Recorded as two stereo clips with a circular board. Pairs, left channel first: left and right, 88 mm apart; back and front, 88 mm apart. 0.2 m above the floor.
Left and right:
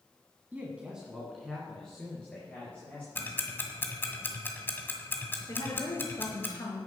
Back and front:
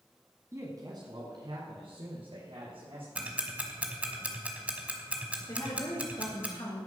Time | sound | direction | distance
0.5 | a man speaking | 35° right | 1.5 m
3.1 | ticking | 55° left | 1.6 m
5.5 | a woman speaking | 145° left | 3.5 m